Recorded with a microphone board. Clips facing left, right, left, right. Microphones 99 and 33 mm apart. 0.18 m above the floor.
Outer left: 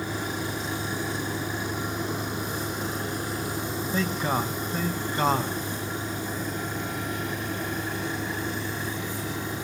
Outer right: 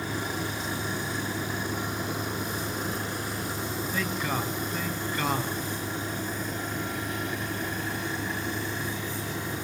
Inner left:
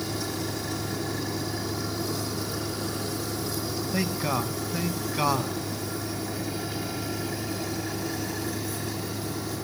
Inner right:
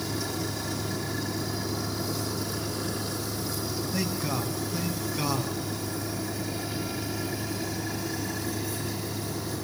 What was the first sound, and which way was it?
A man speaking, 30° left (ahead or behind).